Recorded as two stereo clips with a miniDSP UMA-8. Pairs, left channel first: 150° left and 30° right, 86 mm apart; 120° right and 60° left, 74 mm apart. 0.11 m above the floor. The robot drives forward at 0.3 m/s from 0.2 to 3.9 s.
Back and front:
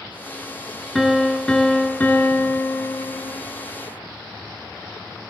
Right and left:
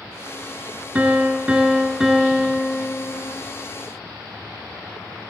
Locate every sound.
0.9 s a piano: 60° left, 0.9 m; by 3.4 s 155° left, 1.0 m